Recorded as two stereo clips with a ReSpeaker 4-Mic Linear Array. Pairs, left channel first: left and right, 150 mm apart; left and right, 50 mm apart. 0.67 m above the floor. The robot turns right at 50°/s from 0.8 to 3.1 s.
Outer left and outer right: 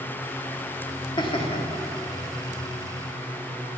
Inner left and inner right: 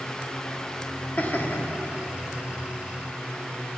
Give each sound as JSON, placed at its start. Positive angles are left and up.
{"t": 1.2, "sound": "laughter", "side_deg": 30, "distance_m": 1.5}